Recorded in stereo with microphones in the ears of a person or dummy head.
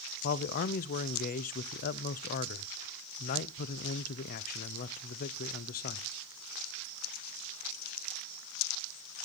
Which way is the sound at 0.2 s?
45° left (ahead or behind).